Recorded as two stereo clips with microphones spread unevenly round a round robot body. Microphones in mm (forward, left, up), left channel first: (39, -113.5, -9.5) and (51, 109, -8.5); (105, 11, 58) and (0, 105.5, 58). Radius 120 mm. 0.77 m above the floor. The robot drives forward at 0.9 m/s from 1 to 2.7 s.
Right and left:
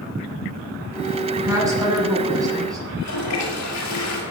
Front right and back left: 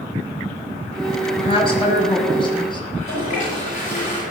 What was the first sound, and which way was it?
A woman speaking, 10° left.